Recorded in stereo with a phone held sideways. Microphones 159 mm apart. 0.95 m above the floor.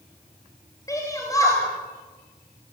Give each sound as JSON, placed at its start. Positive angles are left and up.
{"t": 0.9, "sound": "a shout", "side_deg": 20, "distance_m": 4.5}